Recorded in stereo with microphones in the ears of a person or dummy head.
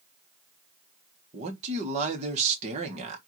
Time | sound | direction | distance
1.3 | a man speaking | 35° right (ahead or behind) | 1.3 m